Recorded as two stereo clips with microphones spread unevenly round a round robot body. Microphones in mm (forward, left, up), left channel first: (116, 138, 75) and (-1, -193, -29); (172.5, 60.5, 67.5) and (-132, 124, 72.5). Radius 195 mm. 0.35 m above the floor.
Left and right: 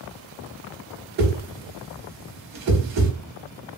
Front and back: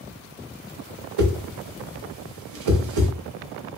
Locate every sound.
1.2 s a whoosh: 165° right, 0.6 m